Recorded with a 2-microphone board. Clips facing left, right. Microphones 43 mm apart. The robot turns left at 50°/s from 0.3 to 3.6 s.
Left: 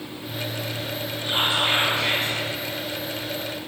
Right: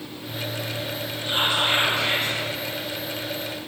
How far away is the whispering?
About 1.1 m.